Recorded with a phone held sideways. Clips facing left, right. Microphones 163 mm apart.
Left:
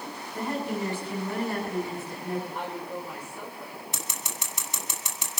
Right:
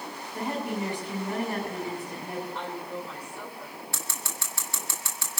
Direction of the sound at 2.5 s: 10° left (ahead or behind).